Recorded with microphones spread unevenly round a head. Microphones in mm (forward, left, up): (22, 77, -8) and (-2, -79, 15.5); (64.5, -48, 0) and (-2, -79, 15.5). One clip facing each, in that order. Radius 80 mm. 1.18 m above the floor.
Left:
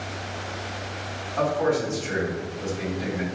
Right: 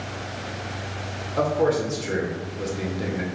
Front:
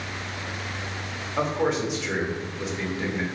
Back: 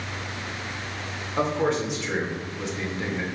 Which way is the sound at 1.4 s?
55° right.